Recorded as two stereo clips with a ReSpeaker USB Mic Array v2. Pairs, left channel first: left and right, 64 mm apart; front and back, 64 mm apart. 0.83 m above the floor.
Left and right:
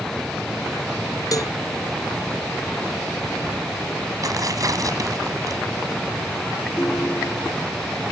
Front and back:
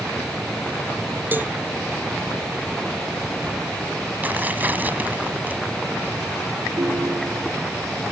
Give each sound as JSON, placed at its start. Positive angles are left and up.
{"t": 1.3, "sound": "a cowbell", "azimuth_deg": 120}
{"t": 4.2, "sound": "tearing paper", "azimuth_deg": -120}
{"t": 6.8, "sound": "a ringtone", "azimuth_deg": 145}